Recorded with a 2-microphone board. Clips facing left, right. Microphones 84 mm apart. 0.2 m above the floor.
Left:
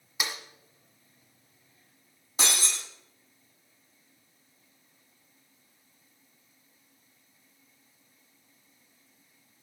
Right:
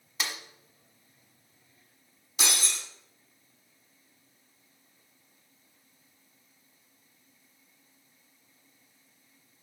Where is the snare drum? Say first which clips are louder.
Left 1 dB; 10° left (ahead or behind), 1.3 m.